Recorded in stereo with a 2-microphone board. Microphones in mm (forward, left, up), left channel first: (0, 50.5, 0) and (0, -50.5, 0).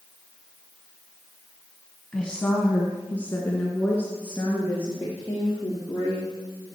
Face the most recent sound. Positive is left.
turn(degrees=25)  # may be behind; listen again after turning